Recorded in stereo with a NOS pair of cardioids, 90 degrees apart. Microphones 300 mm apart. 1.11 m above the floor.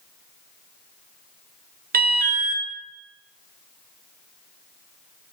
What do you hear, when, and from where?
1.9 s an alarm: 30° right, 1.0 m